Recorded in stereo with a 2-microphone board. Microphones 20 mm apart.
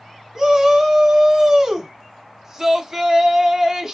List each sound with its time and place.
0.3 s a shout: 25° right (ahead or behind), 1.1 m